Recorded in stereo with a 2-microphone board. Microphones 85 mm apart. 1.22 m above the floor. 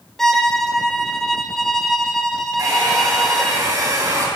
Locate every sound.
0.2 s a violin: 5° left (ahead or behind), 1.0 m
2.6 s a hair dryer: 45° right (ahead or behind), 3.5 m